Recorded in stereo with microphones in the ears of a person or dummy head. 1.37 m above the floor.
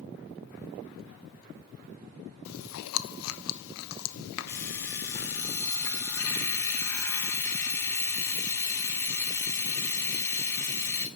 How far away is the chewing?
About 0.7 m.